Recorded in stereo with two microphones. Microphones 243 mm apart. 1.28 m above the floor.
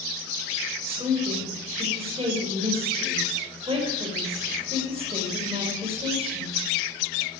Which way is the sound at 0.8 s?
25° right (ahead or behind).